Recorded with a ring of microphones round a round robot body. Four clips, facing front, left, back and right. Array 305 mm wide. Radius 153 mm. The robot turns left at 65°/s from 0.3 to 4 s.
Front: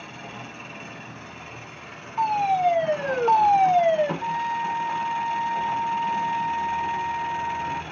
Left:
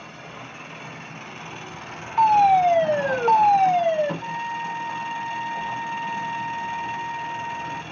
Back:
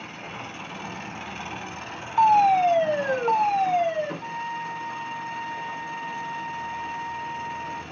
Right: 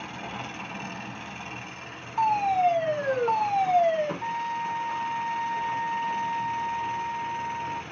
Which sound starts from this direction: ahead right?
A trumpet, at 4.2 s.